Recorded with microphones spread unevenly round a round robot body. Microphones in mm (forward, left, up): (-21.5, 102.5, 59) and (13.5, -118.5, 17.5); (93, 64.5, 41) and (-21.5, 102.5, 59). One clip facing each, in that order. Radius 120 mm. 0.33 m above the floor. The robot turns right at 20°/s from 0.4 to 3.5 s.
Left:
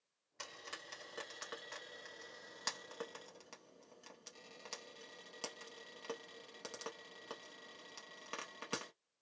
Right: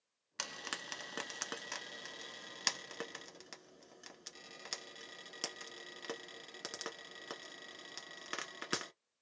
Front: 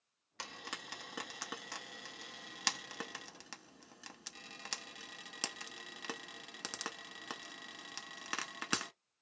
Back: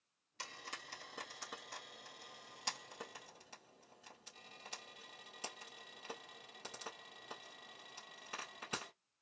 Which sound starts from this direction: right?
Frying, at 0.4 s.